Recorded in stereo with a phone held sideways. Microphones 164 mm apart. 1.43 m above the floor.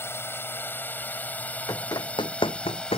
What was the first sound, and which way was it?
A drone, 15° left (ahead or behind).